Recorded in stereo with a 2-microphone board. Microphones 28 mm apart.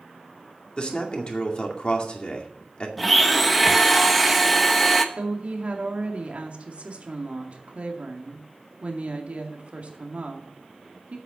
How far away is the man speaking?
About 2 m.